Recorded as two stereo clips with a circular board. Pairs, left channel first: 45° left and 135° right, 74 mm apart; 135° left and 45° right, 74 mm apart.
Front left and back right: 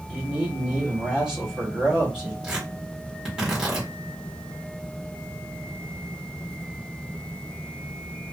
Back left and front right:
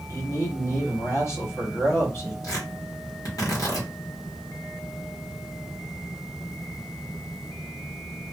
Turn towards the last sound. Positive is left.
turn(degrees=145)